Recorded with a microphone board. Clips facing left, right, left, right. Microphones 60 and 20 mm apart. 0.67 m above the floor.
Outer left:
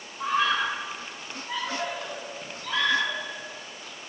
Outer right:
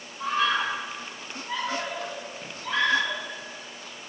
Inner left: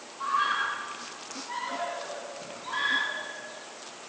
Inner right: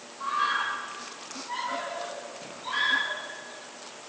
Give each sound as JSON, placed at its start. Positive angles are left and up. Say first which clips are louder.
{"t": 0.2, "sound": "a scream", "louder": "even, even", "side_deg": 5, "distance_m": 6.5}